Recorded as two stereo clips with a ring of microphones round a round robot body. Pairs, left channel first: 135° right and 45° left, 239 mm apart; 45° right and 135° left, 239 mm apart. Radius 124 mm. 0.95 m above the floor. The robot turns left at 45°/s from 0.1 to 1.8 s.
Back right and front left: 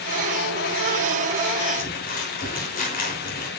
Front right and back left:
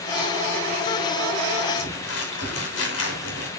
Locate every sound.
1.7 s crumpling: 75° right, 3 m; by 3.5 s 80° right, 3 m